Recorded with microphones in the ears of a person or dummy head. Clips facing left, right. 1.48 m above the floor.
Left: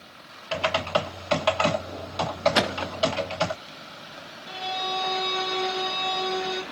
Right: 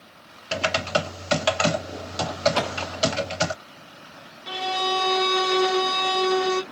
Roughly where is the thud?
Left.